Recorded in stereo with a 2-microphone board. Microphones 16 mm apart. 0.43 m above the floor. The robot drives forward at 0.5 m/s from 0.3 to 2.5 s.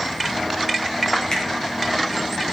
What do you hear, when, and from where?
1.3 s a finger snap: 60° left (ahead or behind), 4 m